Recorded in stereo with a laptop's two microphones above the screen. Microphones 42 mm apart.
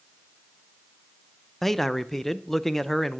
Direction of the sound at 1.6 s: 10° left (ahead or behind).